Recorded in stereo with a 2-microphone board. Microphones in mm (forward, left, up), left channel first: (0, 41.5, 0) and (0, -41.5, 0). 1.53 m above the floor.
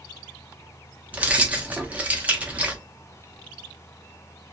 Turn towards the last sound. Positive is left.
turn(degrees=-15)  # may be behind; listen again after turning